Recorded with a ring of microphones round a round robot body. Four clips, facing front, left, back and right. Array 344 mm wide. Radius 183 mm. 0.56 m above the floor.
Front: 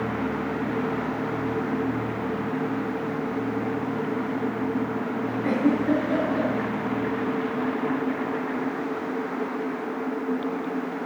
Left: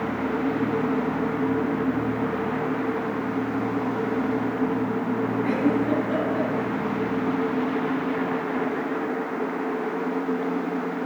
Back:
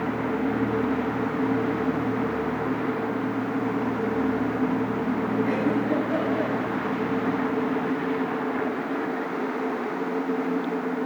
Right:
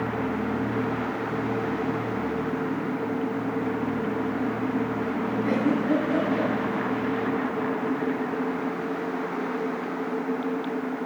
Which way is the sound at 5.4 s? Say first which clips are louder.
Even, front 6 dB; 30° left.